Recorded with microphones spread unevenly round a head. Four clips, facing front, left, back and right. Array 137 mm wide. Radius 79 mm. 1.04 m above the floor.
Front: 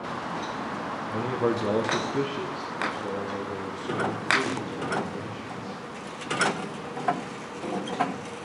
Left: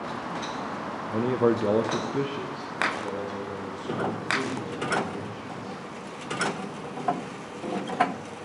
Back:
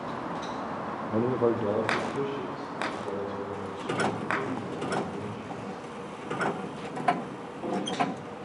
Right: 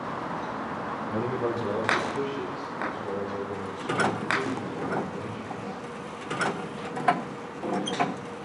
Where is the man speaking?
Straight behind, 0.7 m; by 5.8 s 20° left, 5 m.